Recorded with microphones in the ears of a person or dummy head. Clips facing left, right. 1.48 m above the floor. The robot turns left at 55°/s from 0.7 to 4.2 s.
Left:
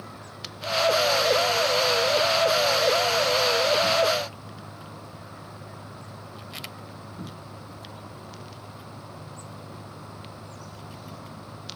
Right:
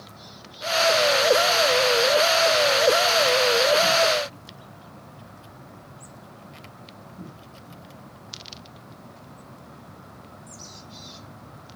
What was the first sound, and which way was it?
Only background noise.